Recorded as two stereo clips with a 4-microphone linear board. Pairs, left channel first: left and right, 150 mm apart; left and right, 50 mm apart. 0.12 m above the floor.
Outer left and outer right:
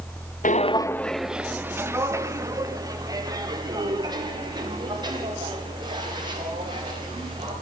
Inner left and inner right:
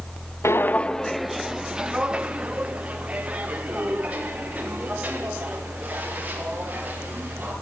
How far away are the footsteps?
About 0.6 m.